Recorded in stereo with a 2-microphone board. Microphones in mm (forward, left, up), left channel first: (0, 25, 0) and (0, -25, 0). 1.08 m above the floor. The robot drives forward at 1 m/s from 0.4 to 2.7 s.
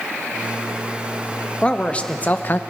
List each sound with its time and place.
1.6 s a man speaking: 20° left (ahead or behind), 1.5 m; by 2.6 s 40° left (ahead or behind), 0.8 m